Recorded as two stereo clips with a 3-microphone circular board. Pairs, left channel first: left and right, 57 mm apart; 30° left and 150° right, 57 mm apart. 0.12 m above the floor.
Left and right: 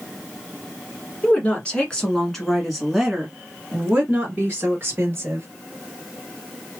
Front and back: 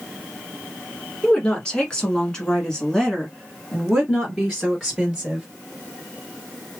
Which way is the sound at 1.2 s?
80° left.